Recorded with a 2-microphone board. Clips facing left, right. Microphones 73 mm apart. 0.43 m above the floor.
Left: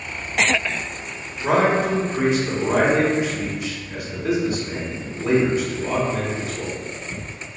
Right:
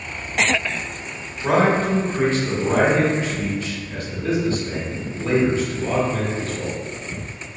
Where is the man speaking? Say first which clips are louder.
Even; 15° left (ahead or behind), 1.2 m.